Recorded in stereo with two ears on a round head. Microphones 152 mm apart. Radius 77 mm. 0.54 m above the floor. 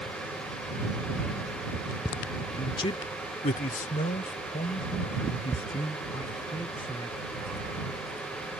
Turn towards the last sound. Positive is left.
turn(degrees=25)  # may be behind; listen again after turning